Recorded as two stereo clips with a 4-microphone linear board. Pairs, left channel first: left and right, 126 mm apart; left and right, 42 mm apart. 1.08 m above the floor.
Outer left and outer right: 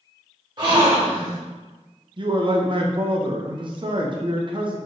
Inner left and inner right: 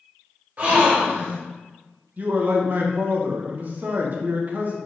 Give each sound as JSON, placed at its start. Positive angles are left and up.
{"t": 0.6, "sound": "a gasp", "side_deg": -35, "distance_m": 0.9}
{"t": 2.2, "sound": "a man speaking", "side_deg": -40, "distance_m": 0.5}